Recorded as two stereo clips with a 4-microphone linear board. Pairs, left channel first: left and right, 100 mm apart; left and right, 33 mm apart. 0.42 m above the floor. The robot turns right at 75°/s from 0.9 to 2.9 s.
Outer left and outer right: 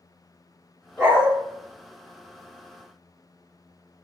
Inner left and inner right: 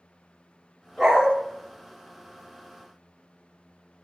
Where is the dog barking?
15° left (ahead or behind), 1.2 m; by 1.3 s 10° right (ahead or behind), 1.2 m.